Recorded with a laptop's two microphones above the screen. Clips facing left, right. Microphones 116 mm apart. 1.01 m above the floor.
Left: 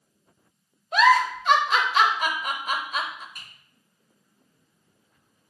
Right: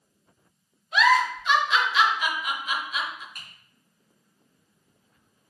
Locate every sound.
0.9 s a giggle: 45° left (ahead or behind), 0.5 m
3.4 s typing on a keyboard: 55° right (ahead or behind), 2.5 m